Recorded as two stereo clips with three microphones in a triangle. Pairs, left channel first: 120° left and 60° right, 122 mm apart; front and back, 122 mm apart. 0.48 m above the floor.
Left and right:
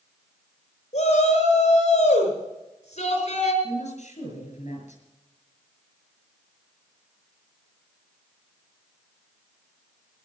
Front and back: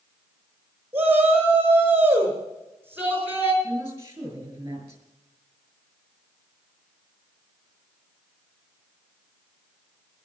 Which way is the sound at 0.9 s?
105° left.